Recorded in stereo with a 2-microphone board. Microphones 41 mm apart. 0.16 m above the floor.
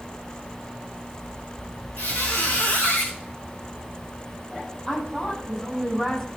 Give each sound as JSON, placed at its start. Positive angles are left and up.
{"t": 2.0, "sound": "a squeak", "side_deg": 65, "distance_m": 3.5}
{"t": 4.9, "sound": "a woman speaking", "side_deg": 20, "distance_m": 7.5}